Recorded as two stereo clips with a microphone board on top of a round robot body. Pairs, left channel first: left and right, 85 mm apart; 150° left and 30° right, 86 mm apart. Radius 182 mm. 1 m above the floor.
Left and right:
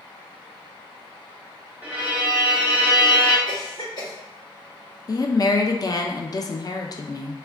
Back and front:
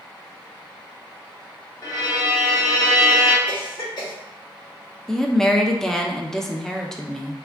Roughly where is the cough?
Behind left.